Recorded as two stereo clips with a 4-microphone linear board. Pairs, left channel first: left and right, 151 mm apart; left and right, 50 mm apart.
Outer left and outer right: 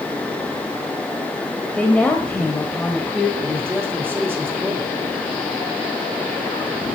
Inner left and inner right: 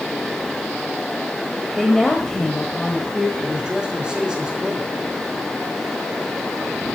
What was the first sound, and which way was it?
A woman speaking, 10° left (ahead or behind).